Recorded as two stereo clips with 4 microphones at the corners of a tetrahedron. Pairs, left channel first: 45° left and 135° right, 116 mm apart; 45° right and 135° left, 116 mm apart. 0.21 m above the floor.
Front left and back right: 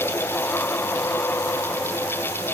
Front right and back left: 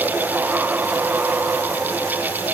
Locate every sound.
Only background noise.